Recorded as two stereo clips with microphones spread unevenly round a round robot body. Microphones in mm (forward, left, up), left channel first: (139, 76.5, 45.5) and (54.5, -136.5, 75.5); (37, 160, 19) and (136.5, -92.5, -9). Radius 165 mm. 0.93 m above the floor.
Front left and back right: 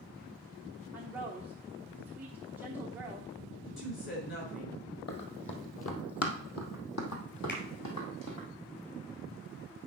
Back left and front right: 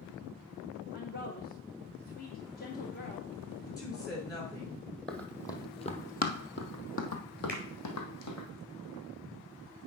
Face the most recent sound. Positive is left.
turn(degrees=30)